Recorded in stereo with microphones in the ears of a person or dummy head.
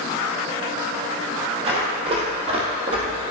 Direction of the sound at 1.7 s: 35° right (ahead or behind).